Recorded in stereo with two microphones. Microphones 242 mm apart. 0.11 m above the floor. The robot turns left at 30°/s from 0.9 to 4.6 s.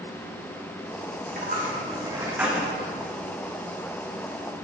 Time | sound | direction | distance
1.3 | a dropped coin | 40° right (ahead or behind) | 3.5 m